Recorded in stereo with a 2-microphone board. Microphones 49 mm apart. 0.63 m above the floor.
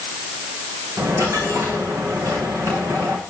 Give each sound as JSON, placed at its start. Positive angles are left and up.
{"t": 1.0, "sound": "a dropped coin", "side_deg": -65, "distance_m": 6.5}